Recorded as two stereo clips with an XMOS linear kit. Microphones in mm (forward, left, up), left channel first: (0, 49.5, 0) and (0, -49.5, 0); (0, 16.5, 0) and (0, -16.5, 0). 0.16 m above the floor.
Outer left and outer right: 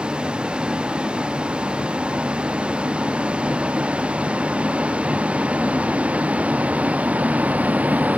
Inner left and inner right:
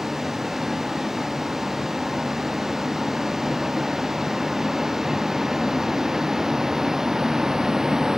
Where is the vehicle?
10° right (ahead or behind); by 8.2 s 15° right (ahead or behind).